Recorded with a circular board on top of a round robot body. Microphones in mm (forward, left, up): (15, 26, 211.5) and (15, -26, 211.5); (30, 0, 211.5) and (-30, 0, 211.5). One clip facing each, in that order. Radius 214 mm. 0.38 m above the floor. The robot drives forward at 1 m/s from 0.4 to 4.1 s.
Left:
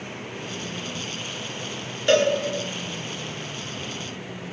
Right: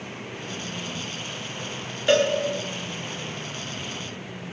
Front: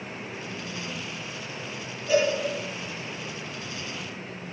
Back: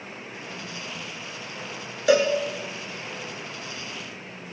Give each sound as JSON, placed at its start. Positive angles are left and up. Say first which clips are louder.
{"t": 2.1, "sound": "a cowbell", "louder": "left 1 dB, back 3 dB", "azimuth_deg": -175, "distance_m": 1.2}